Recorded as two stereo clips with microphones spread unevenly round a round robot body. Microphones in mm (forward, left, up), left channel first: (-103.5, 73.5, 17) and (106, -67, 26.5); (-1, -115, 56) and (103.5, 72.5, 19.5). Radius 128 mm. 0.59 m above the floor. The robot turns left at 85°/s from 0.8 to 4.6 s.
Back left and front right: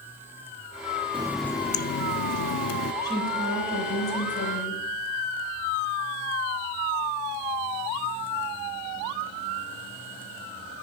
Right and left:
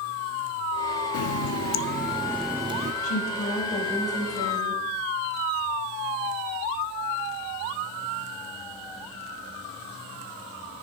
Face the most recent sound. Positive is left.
turn(degrees=90)